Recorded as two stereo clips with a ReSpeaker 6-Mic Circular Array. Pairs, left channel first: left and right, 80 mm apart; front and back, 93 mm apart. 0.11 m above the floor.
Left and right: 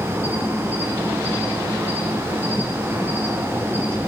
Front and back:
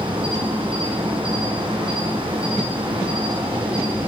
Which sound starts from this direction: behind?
An insect, at 0.0 s.